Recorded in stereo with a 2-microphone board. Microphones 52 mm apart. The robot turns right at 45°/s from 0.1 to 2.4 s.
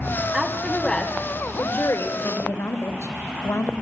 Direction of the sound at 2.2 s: 65° left (ahead or behind).